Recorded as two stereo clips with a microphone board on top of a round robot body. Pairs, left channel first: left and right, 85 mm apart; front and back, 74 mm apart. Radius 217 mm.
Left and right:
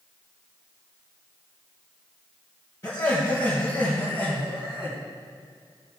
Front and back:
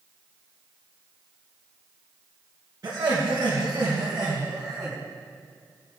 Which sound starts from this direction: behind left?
Laughter, at 2.8 s.